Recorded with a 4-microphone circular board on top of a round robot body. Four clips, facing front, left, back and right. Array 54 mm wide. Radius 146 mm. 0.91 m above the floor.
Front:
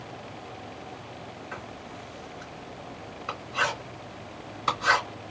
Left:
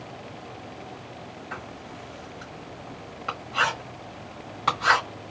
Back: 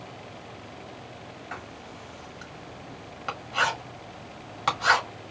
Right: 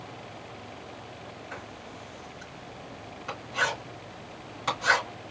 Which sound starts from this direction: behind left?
Writing, at 1.5 s.